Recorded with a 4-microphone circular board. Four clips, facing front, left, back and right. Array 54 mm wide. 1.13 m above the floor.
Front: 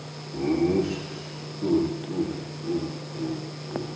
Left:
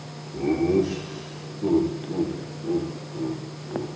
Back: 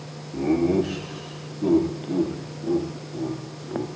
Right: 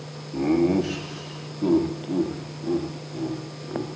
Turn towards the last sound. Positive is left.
turn(degrees=-125)